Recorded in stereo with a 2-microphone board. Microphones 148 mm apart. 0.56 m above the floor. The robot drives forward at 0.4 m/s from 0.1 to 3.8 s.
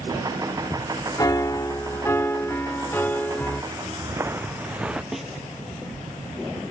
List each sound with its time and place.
1.2 s a piano: 25° left (ahead or behind); by 3.6 s 10° left (ahead or behind)
3.7 s footsteps: 30° right (ahead or behind); by 5.0 s 5° right (ahead or behind)
5.1 s a snare drum: centre (ahead or behind)